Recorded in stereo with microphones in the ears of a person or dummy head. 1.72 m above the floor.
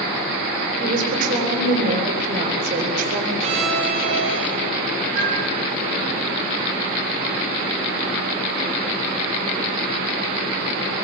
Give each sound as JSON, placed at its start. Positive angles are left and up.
{"t": 0.8, "sound": "a woman speaking", "side_deg": -50, "distance_m": 8.0}
{"t": 3.4, "sound": "a violin", "side_deg": -35, "distance_m": 7.0}
{"t": 5.2, "sound": "a flute", "side_deg": -75, "distance_m": 7.0}